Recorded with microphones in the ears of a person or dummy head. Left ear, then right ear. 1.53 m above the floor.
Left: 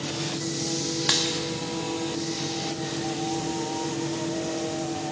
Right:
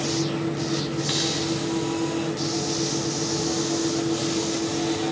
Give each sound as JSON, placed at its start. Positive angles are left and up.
{"t": 1.1, "sound": "a dropped coin", "side_deg": 15, "distance_m": 1.0}